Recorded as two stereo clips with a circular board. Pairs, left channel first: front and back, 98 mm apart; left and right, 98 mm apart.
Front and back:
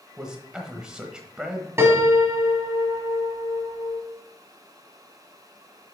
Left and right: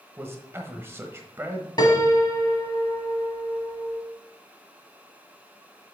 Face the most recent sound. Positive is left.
turn(degrees=120)